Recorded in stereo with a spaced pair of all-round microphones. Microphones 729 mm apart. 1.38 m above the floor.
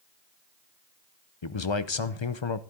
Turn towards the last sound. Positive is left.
turn(degrees=40)  # may be behind; listen again after turning